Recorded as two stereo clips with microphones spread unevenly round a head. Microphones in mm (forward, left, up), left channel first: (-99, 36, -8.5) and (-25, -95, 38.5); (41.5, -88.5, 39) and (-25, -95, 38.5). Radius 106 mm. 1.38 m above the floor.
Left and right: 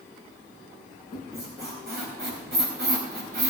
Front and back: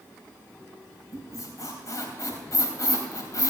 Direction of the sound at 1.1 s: 30° right.